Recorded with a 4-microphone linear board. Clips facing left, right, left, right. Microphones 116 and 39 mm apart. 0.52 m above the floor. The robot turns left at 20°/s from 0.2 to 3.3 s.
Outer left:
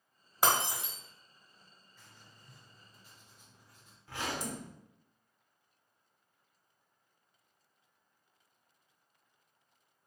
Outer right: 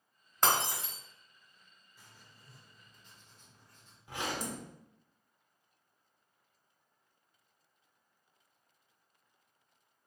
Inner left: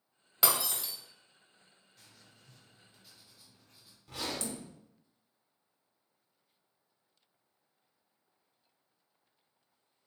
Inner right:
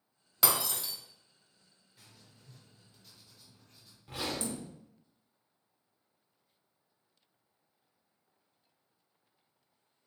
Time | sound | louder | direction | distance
0.4 | breaking glass | even, even | 10° left (ahead or behind) | 1.1 m
2.0 | writing | even, inner right 1 dB | 15° right (ahead or behind) | 0.8 m
4.1 | a zipper | even, inner right 2 dB | 15° right (ahead or behind) | 0.8 m